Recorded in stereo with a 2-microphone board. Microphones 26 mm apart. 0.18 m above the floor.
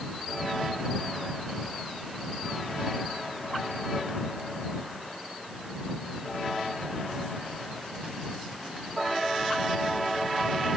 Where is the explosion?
I don't hear an explosion.